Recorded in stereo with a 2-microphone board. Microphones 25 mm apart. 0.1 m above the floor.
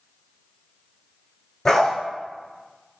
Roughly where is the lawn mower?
I don't hear a lawn mower.